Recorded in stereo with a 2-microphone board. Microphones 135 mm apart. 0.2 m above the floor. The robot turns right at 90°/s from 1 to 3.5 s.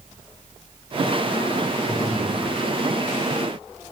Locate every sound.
1.9 s breathing: 165° left, 1.8 m; by 2.4 s 150° right, 1.8 m